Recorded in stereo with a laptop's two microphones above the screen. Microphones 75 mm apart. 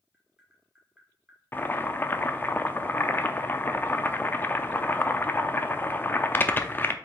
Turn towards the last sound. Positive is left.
turn(degrees=25)  # may be behind; listen again after turning